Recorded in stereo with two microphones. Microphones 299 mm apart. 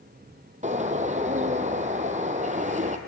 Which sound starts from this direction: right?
A bird, at 0.6 s.